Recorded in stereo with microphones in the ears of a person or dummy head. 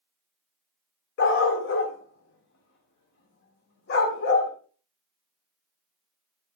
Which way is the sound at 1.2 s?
60° left (ahead or behind).